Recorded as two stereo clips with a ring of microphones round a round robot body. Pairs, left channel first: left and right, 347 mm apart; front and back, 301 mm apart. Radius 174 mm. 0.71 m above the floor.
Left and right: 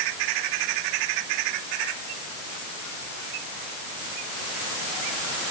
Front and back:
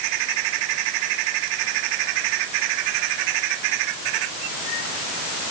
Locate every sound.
Only background noise.